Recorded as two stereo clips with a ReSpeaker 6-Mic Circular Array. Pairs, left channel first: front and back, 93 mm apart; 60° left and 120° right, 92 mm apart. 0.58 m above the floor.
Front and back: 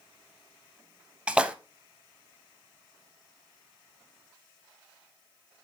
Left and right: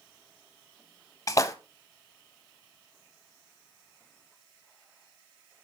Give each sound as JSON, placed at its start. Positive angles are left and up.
{"t": 1.3, "sound": "a splash", "azimuth_deg": 105, "distance_m": 0.6}